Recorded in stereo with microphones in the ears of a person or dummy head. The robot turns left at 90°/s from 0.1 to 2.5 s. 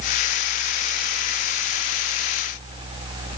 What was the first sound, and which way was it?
Only background noise.